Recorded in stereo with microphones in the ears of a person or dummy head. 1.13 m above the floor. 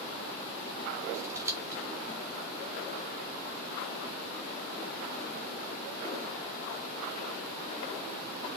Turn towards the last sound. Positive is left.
turn(degrees=-10)  # may be behind; listen again after turning